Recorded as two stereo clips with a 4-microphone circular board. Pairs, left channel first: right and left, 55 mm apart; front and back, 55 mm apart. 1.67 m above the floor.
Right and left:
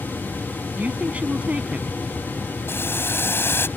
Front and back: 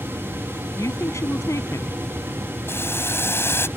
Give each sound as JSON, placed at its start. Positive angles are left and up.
{"t": 0.8, "sound": "a woman speaking", "azimuth_deg": 25}
{"t": 2.7, "sound": "boiling", "azimuth_deg": -45}